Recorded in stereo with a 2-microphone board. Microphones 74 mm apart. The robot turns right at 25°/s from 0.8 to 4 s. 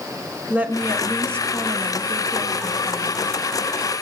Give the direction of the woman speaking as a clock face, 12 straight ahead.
5 o'clock.